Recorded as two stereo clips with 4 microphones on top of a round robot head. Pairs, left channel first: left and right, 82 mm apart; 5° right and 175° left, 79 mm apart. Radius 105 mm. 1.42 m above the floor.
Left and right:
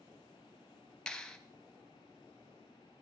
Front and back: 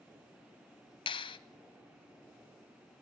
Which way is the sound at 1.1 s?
5° left.